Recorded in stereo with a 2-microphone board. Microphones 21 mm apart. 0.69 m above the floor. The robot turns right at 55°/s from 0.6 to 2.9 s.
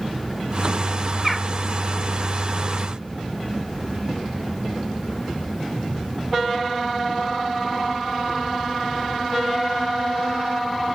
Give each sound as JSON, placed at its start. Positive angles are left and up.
{"t": 1.2, "sound": "a bird", "side_deg": -10, "distance_m": 0.8}